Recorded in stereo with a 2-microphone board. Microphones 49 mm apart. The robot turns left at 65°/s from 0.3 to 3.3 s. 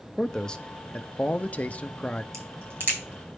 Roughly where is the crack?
Right.